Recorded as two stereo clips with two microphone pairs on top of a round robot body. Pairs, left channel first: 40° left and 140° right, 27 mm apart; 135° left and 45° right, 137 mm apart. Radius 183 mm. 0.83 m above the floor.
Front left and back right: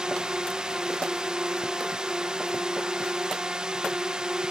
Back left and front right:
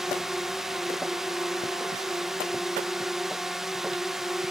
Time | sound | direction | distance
0.0 | a drone | 130° right | ?